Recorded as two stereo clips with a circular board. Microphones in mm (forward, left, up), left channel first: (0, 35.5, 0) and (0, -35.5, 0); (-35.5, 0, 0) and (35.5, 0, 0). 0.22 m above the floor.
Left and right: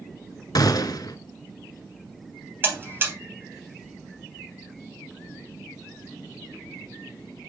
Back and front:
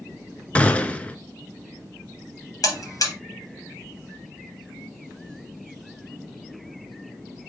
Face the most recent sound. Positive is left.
turn(degrees=-145)